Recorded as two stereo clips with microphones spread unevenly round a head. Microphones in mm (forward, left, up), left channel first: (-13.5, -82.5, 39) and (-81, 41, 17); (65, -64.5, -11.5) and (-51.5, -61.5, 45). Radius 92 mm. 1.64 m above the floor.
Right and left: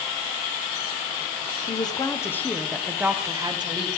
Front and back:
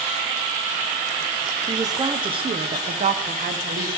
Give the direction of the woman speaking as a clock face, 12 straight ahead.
4 o'clock.